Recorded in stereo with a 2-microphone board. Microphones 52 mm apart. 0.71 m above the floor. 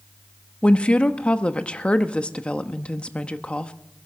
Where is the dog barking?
I don't hear a dog barking.